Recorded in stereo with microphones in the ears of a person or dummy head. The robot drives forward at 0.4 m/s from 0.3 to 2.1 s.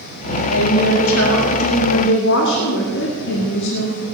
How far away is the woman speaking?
About 2 m.